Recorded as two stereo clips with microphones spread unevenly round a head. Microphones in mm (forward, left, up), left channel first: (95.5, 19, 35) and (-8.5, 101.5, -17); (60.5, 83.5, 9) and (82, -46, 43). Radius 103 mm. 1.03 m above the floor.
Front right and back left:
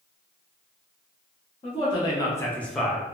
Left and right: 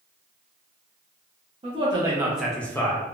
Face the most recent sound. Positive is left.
turn(degrees=85)